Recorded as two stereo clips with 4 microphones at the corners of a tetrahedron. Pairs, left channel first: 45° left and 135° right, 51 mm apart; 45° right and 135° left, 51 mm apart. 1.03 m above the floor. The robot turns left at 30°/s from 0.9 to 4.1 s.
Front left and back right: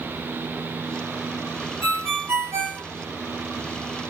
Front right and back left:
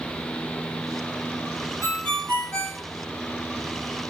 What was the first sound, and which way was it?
A ringtone, 95° right.